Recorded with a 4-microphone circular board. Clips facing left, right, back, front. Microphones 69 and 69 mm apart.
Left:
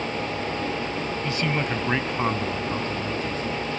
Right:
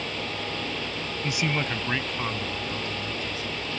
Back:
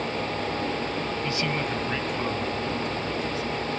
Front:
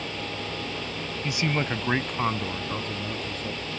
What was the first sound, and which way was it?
A man speaking, 60° right.